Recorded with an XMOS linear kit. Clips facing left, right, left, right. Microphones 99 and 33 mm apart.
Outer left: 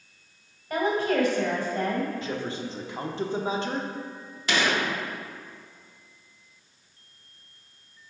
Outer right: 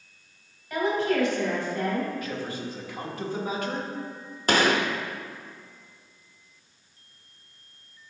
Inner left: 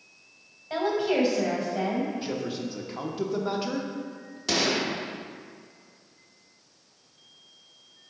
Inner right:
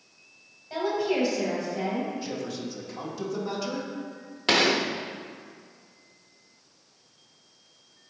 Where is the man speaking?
25° left (ahead or behind), 0.7 m.